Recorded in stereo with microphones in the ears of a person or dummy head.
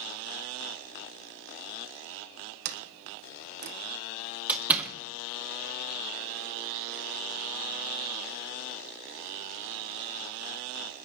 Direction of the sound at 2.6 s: 60° right (ahead or behind).